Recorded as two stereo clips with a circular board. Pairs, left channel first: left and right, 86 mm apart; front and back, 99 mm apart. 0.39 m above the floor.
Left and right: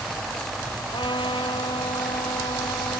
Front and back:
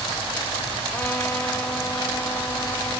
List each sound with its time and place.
0.9 s a trumpet: 70° left